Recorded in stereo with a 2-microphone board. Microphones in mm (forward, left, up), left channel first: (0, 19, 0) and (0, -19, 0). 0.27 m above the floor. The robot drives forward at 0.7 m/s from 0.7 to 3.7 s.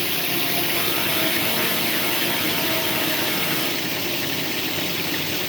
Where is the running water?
10° left (ahead or behind); by 5.5 s 5° left (ahead or behind).